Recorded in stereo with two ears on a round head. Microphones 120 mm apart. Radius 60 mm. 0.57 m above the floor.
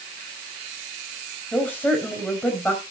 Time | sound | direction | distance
1.5 | a woman speaking | 10° left (ahead or behind) | 3.5 m